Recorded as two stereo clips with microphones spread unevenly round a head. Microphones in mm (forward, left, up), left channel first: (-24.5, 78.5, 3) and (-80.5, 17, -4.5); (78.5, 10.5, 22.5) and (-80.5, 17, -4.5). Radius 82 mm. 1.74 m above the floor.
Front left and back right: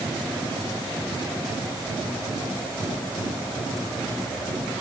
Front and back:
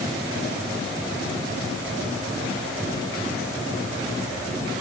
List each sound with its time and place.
Only background noise.